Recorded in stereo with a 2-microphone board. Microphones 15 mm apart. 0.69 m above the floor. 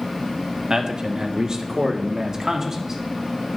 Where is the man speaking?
45° right (ahead or behind), 1.3 m; by 3.0 s 30° right (ahead or behind), 1.9 m.